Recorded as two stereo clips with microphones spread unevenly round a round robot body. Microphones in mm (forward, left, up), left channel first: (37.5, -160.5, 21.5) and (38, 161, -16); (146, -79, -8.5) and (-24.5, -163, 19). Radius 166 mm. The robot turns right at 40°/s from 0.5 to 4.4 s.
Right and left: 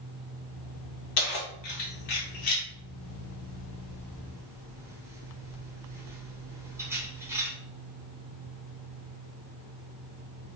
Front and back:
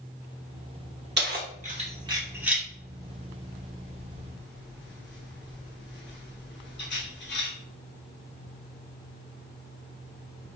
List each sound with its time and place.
1.2 s keys jangling: 120° right, 1.1 m; by 7.5 s 10° left, 1.1 m